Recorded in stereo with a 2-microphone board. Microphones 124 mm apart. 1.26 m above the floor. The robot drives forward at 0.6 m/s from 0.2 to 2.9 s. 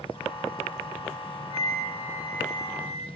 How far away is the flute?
About 5.5 m.